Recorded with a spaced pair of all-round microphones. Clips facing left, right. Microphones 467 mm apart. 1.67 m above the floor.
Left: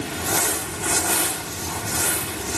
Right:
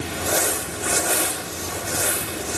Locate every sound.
0.1 s crumpling: 20° left (ahead or behind), 4.5 m